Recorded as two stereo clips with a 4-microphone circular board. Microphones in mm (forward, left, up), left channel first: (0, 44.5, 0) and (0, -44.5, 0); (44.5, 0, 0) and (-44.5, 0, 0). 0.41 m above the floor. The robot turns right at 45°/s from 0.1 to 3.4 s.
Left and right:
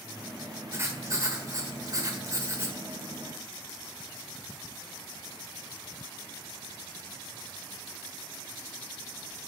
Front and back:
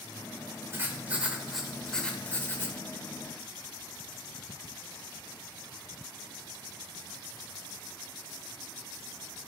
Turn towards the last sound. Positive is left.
turn(degrees=-15)